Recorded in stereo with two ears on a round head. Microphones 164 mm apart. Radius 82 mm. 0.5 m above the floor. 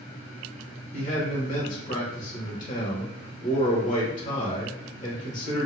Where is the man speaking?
45° left (ahead or behind), 1.4 m.